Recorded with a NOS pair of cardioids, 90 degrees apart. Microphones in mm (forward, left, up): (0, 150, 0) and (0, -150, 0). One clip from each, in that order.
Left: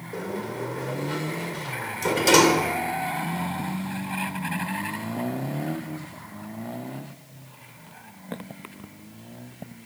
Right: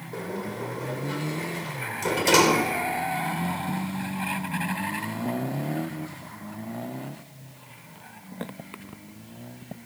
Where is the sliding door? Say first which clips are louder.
Left 2 dB; 15° left, 3.5 m.